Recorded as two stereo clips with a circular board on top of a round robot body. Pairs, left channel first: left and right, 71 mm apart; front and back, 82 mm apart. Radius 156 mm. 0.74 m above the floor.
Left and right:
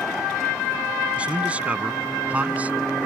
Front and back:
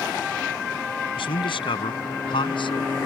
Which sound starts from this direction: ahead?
A man speaking, at 1.2 s.